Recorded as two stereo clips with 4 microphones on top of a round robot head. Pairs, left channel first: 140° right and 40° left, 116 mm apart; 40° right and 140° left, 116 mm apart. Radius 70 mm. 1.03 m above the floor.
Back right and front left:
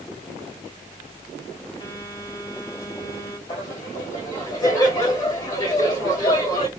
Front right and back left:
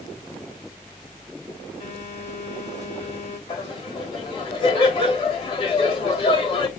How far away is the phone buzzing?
About 2.5 m.